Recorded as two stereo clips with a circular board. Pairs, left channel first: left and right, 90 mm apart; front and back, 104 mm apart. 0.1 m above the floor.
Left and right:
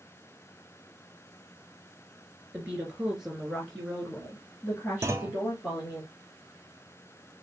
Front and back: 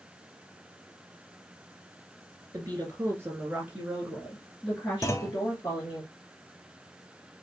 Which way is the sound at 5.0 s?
45° right.